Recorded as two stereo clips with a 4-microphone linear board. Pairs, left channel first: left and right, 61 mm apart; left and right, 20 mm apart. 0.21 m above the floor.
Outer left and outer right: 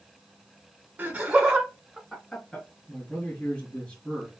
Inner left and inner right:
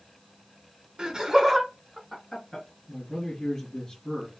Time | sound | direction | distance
1.0 | laughter | 25° right (ahead or behind) | 1.0 m
2.9 | a man speaking | 15° left (ahead or behind) | 2.5 m